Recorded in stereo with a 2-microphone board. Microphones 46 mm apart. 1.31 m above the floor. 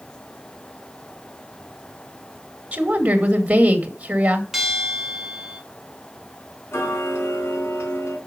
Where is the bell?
5° right (ahead or behind), 2 m.